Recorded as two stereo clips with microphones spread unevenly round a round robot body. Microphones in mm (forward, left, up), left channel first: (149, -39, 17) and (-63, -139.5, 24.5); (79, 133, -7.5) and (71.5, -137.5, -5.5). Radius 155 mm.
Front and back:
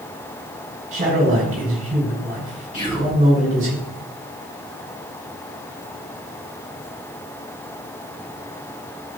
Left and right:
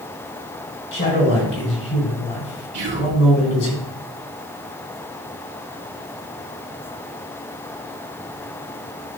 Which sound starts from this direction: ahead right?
Whispering, at 2.7 s.